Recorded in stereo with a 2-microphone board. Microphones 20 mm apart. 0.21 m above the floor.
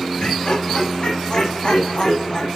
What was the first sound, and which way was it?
Laughter, 55° left (ahead or behind).